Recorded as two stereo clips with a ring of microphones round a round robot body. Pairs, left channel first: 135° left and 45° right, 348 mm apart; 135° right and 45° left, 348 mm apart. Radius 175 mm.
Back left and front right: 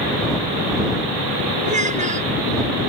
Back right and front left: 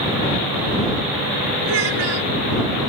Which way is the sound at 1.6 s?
25° left.